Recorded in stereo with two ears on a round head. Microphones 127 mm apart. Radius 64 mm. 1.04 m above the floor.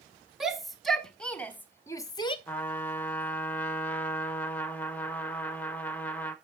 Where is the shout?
5° right (ahead or behind), 1.8 m; by 2.4 s 40° left (ahead or behind), 0.8 m.